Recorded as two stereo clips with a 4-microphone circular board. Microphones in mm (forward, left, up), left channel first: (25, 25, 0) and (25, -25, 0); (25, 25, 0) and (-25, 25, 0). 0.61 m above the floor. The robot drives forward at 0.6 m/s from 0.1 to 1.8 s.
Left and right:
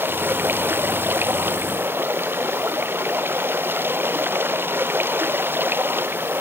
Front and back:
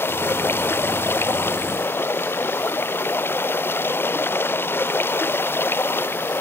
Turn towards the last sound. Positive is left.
turn(degrees=-45)